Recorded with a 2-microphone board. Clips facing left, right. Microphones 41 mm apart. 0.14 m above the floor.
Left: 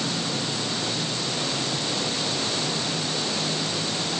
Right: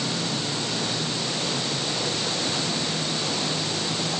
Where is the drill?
No drill in this recording.